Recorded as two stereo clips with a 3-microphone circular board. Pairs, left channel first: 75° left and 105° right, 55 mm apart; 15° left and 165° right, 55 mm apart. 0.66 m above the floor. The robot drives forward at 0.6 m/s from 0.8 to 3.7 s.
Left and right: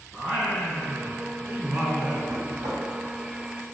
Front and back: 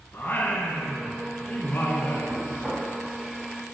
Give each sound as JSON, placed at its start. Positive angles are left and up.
{"t": 0.1, "sound": "singing", "azimuth_deg": -35, "distance_m": 3.0}
{"t": 2.3, "sound": "knocking", "azimuth_deg": -90, "distance_m": 3.0}